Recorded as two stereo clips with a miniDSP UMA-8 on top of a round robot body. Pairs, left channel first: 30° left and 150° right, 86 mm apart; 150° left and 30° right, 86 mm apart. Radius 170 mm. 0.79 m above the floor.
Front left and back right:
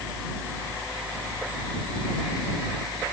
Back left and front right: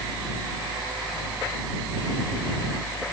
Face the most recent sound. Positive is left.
No sound to turn to.